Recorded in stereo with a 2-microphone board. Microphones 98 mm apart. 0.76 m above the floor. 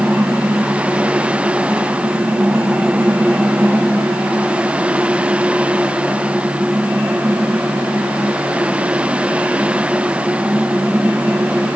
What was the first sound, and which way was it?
Only background noise.